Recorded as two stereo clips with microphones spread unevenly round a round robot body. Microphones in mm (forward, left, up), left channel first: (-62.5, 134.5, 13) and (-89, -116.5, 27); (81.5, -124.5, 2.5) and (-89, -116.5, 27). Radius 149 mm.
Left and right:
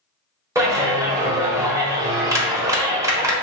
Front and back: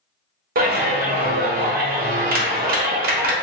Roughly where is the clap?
Behind.